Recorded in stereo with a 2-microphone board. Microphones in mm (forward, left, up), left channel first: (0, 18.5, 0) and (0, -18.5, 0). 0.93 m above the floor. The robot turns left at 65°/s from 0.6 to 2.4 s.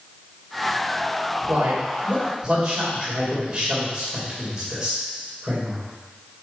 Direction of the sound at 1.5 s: 80° right.